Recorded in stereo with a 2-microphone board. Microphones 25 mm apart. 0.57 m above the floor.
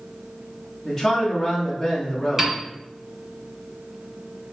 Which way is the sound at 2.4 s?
20° right (ahead or behind).